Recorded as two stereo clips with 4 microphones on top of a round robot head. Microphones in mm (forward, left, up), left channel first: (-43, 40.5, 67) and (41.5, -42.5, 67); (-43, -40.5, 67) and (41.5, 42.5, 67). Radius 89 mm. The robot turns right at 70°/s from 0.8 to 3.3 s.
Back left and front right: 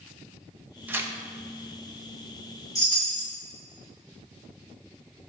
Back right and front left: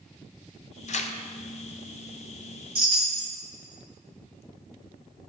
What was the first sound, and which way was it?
Tearing paper, 120° right.